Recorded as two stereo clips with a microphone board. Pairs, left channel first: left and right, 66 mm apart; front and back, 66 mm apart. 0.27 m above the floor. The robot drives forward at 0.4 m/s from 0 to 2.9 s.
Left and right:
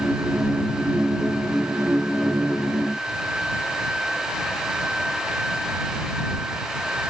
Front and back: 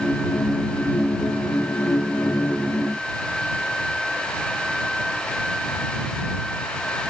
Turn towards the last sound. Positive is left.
No sound to turn to.